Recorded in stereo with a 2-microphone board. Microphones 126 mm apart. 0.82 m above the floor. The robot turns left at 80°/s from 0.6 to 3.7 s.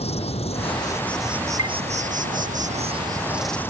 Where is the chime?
50° left (ahead or behind); by 1.8 s 35° left (ahead or behind).